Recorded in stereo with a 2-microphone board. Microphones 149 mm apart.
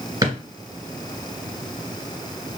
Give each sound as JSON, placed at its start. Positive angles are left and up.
{"t": 0.2, "sound": "a drawer", "side_deg": -20, "distance_m": 1.9}